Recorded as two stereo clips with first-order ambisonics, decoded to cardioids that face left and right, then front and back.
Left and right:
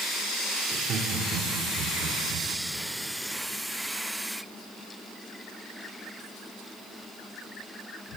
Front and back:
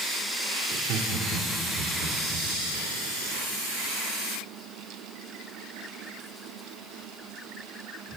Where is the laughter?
150° right, 2.5 m; by 2.5 s 130° right, 4 m.